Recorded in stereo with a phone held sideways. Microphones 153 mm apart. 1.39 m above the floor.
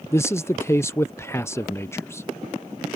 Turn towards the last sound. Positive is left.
turn(degrees=15)  # may be behind; listen again after turning